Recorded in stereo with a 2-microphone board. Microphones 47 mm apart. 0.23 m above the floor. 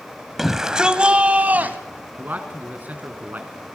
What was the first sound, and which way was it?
A shout, 5° right (ahead or behind).